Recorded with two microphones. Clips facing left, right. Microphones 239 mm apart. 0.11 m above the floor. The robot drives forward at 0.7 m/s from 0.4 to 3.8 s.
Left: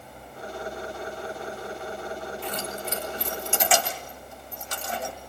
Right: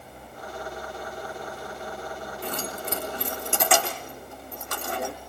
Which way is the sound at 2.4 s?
50° right (ahead or behind).